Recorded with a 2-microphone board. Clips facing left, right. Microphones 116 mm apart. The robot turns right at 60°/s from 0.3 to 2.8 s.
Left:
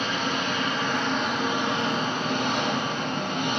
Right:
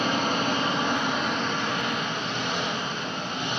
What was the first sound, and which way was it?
An engine running, 60° right.